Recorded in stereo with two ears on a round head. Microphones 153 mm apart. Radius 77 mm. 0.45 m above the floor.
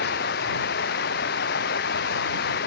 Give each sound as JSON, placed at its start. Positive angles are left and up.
{"t": 0.0, "sound": "running water", "side_deg": 70}